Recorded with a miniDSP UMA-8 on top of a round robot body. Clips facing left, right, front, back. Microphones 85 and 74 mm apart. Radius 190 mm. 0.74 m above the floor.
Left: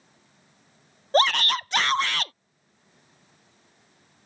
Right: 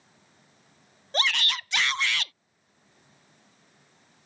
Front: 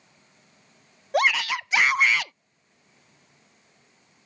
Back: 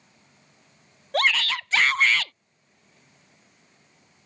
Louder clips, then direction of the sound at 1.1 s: Left 8 dB, front 1 dB; 70° left.